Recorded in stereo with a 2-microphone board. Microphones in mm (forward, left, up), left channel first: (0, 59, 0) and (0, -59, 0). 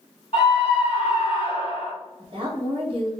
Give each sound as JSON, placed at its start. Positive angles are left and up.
{"t": 0.3, "sound": "a scream", "side_deg": 45, "distance_m": 1.7}
{"t": 2.2, "sound": "a woman speaking", "side_deg": -50, "distance_m": 1.2}